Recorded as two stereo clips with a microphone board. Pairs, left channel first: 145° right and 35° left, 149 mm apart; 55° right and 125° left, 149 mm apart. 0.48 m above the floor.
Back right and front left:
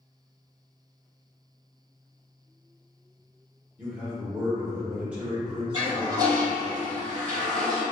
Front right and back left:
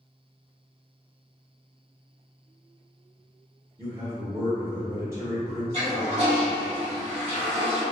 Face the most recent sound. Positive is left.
turn(degrees=95)